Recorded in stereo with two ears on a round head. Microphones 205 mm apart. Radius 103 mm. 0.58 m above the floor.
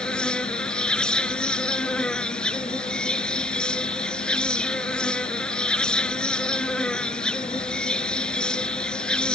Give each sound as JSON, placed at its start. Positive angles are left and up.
{"t": 0.0, "sound": "an insect", "side_deg": 5}